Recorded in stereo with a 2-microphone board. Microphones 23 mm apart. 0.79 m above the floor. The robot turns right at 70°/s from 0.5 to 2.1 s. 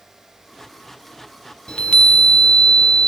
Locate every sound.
1.7 s a chime: 50° left (ahead or behind), 0.6 m; by 3.1 s 55° left (ahead or behind), 0.6 m